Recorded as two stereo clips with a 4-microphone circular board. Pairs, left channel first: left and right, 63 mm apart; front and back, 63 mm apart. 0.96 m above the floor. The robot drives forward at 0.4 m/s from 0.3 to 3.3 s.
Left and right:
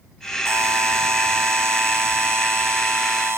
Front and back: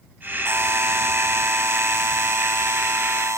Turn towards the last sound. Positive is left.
turn(degrees=-140)